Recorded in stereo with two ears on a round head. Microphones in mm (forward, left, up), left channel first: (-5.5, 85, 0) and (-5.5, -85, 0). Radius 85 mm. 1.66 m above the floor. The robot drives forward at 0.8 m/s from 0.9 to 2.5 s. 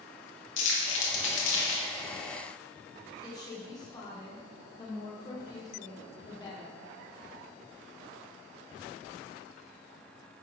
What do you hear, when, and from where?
0.6 s crumpling: 70° left (ahead or behind), 2 m; by 1.8 s 75° left (ahead or behind), 2 m
3.2 s a woman speaking: 20° left (ahead or behind), 1.5 m